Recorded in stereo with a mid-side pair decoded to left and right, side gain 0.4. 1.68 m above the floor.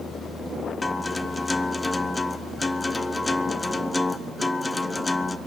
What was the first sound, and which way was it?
A guitar, 20° left.